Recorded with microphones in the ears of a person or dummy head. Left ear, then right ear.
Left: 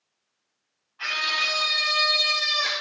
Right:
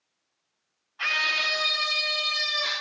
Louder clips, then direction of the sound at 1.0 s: Even; 25° right (ahead or behind).